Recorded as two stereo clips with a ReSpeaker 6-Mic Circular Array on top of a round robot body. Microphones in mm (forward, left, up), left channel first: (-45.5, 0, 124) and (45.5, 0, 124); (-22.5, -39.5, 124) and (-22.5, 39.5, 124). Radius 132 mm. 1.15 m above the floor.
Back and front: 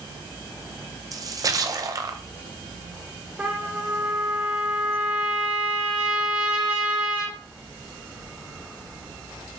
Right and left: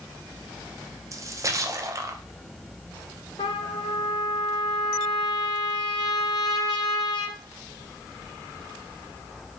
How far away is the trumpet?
About 0.6 m.